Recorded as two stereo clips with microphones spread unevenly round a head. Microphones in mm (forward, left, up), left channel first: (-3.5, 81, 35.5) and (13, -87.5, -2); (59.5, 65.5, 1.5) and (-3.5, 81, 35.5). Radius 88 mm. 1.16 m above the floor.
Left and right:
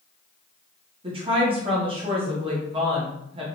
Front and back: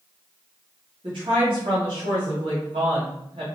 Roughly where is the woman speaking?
Behind right.